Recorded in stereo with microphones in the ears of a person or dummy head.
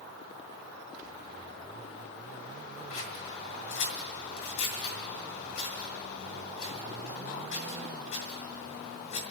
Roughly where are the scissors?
Left.